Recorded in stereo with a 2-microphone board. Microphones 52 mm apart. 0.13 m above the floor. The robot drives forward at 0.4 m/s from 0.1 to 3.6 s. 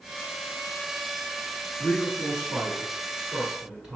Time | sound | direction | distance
1.8 | a man speaking | 15° right (ahead or behind) | 1.5 m